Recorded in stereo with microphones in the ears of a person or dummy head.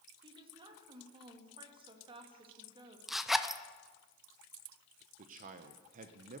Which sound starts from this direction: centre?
A zipper, at 3.1 s.